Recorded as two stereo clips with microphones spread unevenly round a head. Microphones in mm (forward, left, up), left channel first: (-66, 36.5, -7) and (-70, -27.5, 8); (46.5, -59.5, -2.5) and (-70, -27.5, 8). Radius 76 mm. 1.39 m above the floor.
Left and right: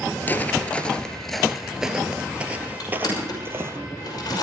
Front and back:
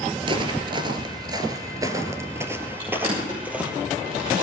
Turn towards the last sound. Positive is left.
turn(degrees=100)